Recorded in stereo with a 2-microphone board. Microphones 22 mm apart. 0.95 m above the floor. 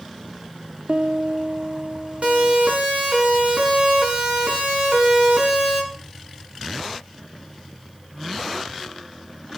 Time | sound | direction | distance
0.9 | a piano | 55° right (ahead or behind) | 0.7 m
2.2 | a siren | 80° right | 7.5 m